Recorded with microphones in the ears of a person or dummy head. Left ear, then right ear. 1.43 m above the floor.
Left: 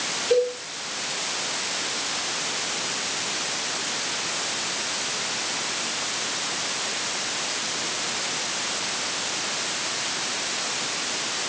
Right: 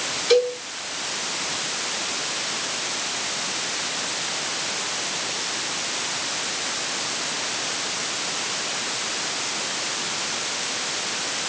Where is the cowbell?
30° right (ahead or behind), 3.5 m.